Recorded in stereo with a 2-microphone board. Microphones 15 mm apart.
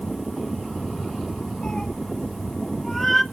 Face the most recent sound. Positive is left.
turn(degrees=10)  # may be behind; listen again after turning